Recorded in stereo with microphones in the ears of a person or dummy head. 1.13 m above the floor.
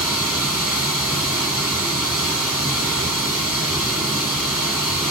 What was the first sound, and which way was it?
Running water, 5° right (ahead or behind).